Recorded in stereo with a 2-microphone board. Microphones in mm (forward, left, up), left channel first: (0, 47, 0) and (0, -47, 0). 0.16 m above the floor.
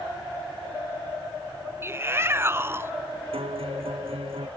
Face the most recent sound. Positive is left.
turn(degrees=-80)